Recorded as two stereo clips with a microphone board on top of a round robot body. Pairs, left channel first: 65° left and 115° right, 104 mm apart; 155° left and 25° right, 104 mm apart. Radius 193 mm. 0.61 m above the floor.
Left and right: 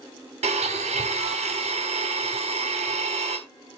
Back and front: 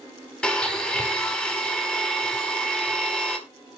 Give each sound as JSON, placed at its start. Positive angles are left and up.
{"t": 0.4, "sound": "a blender", "azimuth_deg": -120, "distance_m": 3.5}